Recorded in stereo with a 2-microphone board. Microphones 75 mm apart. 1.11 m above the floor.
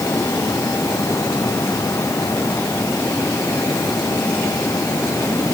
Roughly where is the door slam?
No door slam in this recording.